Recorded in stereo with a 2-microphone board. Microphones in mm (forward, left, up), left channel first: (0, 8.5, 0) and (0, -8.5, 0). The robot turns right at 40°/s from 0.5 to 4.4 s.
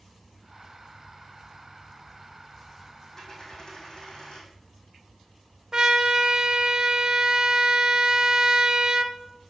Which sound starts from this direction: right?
A trumpet, at 5.7 s.